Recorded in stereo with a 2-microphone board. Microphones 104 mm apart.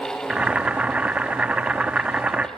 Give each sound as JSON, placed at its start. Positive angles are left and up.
{"t": 0.3, "sound": "boiling", "side_deg": -10, "distance_m": 0.6}